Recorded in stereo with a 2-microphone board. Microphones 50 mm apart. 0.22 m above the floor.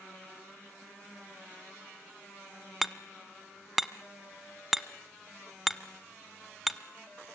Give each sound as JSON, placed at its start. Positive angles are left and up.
{"t": 2.8, "sound": "hammering", "side_deg": 0, "distance_m": 0.8}